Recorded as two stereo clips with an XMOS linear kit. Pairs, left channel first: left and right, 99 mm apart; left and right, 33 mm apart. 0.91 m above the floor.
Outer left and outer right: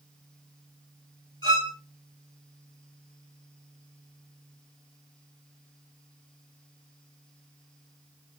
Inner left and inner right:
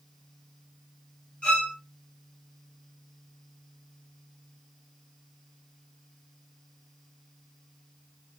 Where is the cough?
I don't hear a cough.